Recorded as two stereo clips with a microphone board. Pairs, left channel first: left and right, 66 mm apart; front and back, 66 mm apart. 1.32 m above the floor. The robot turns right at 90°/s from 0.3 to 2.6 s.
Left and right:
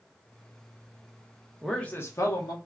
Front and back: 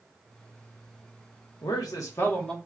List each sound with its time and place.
1.6 s a man speaking: 5° right, 1.1 m; by 2.5 s 80° left, 1.1 m